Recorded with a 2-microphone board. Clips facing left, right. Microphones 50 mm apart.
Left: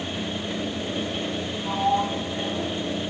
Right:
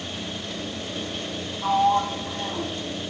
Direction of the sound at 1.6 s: 55° right (ahead or behind).